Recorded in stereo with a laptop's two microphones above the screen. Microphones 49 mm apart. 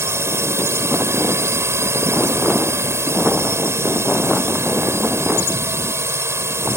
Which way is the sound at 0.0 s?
65° right (ahead or behind).